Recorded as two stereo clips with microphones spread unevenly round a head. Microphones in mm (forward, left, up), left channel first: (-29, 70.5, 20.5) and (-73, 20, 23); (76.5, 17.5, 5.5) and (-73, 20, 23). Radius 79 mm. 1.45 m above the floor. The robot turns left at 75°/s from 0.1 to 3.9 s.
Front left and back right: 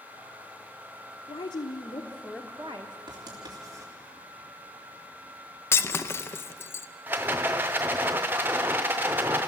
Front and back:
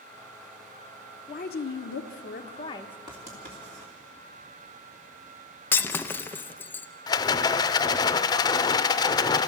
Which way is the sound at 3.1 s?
115° right.